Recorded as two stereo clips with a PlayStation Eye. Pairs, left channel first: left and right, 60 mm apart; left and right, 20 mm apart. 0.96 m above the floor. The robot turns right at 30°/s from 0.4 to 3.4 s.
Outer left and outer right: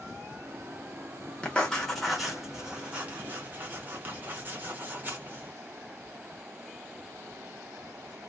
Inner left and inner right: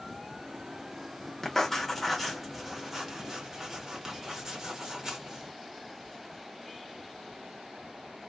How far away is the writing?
About 0.9 m.